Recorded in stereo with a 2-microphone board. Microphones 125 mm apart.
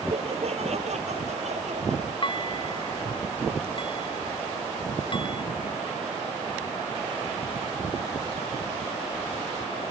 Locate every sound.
0.1 s laughter: 60° right (ahead or behind); by 2.1 s 65° right (ahead or behind)
2.2 s dishes clattering: 40° left (ahead or behind)